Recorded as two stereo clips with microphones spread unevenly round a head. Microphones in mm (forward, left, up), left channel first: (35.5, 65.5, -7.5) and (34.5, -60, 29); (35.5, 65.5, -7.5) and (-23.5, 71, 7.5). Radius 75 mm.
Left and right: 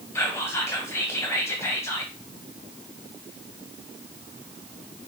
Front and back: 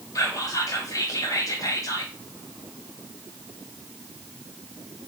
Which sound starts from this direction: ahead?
Whispering, at 0.1 s.